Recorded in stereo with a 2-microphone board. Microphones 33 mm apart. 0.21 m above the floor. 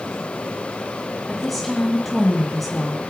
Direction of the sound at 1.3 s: 5° left (ahead or behind).